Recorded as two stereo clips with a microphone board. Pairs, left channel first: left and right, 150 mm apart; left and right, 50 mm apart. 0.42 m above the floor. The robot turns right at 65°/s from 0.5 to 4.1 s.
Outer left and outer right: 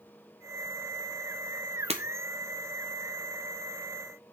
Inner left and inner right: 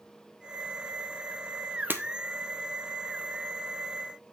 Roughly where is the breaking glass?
Right.